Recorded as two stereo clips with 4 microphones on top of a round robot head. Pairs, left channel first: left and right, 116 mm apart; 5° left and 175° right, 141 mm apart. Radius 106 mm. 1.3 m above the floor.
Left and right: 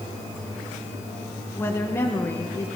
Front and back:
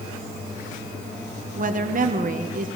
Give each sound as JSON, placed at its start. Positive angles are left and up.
{"t": 1.6, "sound": "a woman speaking", "azimuth_deg": 165, "distance_m": 1.4}